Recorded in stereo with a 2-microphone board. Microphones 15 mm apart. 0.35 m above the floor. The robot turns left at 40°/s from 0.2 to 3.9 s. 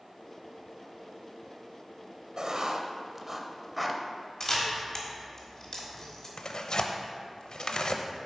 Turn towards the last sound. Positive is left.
turn(degrees=60)  # may be behind; listen again after turning